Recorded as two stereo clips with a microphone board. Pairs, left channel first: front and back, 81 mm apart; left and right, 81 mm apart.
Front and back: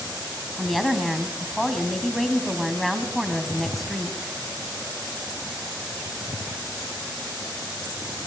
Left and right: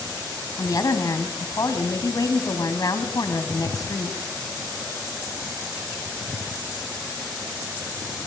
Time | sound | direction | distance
0.6 | a woman speaking | 90° left | 1.8 m